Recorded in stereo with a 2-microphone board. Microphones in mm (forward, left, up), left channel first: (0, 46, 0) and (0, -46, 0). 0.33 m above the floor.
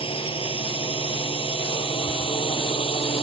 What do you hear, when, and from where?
0.0 s a drone: 75° left (ahead or behind); by 3.2 s 85° left